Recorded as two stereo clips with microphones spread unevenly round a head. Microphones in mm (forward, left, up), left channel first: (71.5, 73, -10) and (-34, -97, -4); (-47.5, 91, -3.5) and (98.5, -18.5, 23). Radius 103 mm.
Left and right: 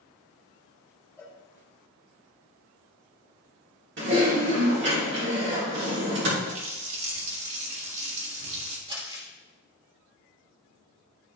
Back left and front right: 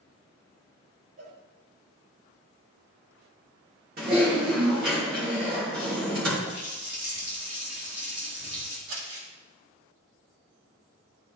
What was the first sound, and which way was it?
A cowbell, 20° right.